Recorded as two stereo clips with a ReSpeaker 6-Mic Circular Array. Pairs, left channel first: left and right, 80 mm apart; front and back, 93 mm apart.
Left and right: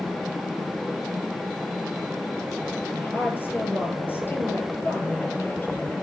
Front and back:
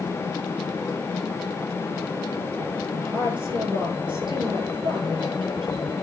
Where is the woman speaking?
155° left, 9.5 m.